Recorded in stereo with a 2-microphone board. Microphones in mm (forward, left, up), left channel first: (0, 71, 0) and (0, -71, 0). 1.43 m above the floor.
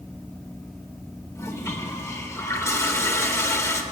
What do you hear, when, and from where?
1.4 s a toilet flushing: 20° left (ahead or behind), 3.5 m